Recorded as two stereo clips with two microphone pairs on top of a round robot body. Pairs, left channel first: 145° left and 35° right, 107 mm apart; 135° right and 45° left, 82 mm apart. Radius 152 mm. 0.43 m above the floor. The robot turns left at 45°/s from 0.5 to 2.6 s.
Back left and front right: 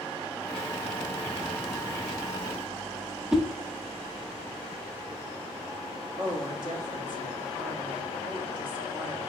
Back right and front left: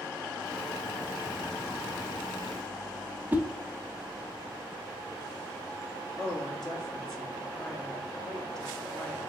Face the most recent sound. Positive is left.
turn(degrees=-35)